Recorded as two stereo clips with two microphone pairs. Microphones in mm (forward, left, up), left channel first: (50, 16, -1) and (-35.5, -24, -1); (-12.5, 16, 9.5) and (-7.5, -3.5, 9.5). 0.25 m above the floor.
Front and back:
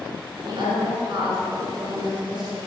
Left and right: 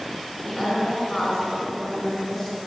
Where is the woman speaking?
165° left, 3.5 m.